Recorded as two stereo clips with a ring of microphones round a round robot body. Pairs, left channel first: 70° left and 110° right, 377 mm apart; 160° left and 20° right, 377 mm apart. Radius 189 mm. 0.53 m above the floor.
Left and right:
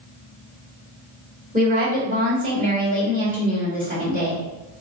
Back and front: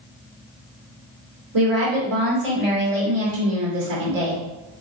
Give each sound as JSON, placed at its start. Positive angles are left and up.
{"t": 1.5, "sound": "a woman speaking", "azimuth_deg": -45, "distance_m": 2.0}